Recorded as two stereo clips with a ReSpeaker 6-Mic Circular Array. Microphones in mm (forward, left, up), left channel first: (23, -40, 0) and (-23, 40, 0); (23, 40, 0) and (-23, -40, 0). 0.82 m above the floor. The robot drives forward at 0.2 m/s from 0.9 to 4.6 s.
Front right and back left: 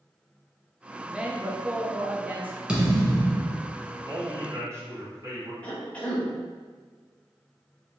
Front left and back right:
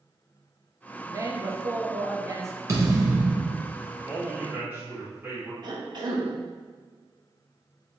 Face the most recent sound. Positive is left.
turn(degrees=-130)